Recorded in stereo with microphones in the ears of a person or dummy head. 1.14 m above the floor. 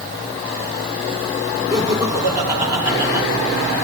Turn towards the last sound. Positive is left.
turn(degrees=-20)  # may be behind; listen again after turning